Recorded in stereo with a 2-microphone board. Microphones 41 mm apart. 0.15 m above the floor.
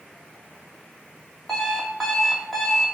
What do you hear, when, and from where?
1.5 s an alarm clock: 5° left (ahead or behind), 2.5 m